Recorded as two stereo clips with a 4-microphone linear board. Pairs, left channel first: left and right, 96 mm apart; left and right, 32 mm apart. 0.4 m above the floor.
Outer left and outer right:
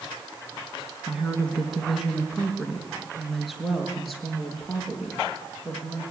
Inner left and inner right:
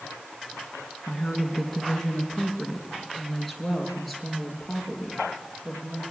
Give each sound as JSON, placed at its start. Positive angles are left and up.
{"t": 1.1, "sound": "a woman speaking", "side_deg": -5, "distance_m": 3.5}